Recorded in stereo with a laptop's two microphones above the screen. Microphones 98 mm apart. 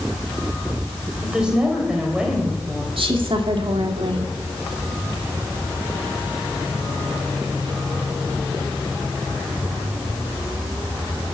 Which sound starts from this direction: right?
A woman speaking, at 3.0 s.